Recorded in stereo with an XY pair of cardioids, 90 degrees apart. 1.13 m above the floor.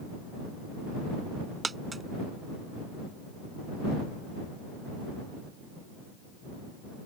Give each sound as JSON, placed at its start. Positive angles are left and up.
{"t": 1.6, "sound": "a dropped coin", "azimuth_deg": -30}